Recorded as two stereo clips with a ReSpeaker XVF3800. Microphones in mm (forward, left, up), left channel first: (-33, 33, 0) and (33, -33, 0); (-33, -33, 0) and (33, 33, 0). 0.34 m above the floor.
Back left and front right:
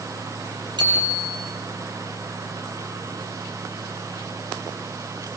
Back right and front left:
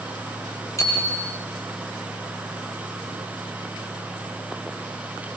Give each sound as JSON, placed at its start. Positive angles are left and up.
{"t": 0.8, "sound": "a bicycle bell", "azimuth_deg": -80, "distance_m": 6.5}